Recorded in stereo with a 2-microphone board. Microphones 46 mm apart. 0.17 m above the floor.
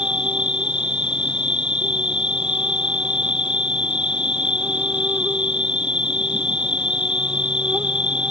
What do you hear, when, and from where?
0.0 s an insect: 20° right (ahead or behind)